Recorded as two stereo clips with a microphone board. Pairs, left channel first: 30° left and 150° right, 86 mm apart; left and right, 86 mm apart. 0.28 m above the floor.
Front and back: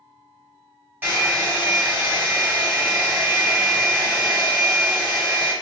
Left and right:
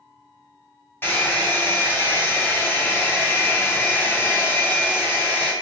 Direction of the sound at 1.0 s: 145° left.